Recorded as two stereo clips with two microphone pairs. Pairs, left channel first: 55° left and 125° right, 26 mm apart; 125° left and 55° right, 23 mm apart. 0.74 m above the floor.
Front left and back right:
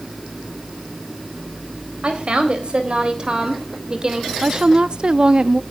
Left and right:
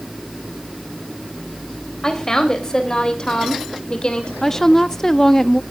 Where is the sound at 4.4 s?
170° right, 0.6 m.